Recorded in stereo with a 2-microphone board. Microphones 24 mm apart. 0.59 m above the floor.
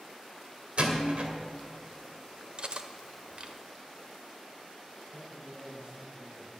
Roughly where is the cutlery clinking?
Right.